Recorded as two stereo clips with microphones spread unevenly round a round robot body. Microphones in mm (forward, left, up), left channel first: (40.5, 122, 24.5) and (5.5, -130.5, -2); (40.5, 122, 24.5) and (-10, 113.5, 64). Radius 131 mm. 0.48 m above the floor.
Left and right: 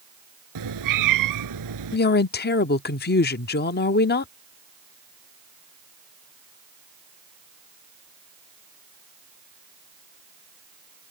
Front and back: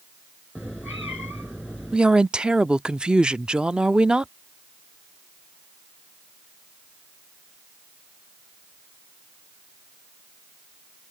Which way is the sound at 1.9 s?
60° left.